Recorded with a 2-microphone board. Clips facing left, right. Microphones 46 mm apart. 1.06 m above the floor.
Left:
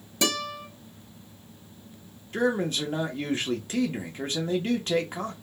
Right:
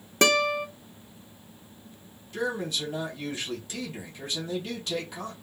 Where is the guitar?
50° right (ahead or behind), 0.6 m.